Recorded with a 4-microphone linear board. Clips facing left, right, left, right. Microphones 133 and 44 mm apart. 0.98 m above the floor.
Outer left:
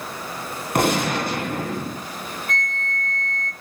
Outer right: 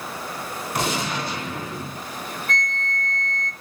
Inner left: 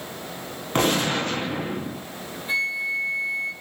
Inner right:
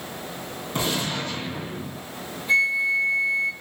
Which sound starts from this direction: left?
A gunshot, at 0.8 s.